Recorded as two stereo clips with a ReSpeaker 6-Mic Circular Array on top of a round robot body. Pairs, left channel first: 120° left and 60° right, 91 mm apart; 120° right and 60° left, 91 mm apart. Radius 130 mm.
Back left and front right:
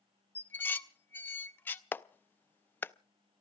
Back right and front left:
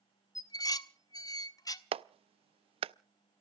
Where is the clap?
50° left, 0.5 m.